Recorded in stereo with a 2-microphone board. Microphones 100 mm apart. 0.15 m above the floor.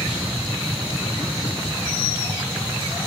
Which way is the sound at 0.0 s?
15° right (ahead or behind).